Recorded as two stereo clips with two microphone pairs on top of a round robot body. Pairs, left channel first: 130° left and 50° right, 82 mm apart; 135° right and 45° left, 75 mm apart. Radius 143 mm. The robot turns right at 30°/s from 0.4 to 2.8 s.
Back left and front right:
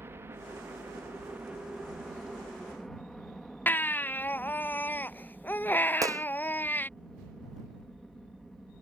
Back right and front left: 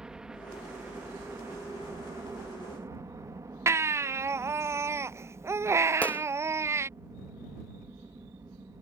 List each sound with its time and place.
0.0 s a helicopter: 30° right; by 8.8 s 40° left
3.7 s a baby crying: 65° left
6.0 s a gunshot: 70° right